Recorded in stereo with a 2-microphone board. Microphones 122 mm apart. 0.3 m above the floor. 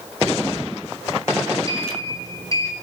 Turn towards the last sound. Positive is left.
turn(degrees=30)  # may be behind; listen again after turning